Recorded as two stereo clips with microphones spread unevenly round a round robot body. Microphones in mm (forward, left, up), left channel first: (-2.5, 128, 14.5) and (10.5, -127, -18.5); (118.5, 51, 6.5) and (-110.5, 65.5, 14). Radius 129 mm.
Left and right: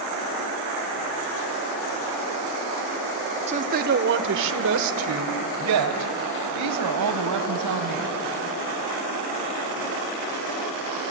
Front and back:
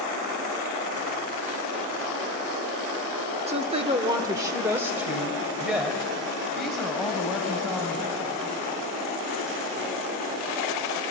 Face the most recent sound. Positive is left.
turn(degrees=-90)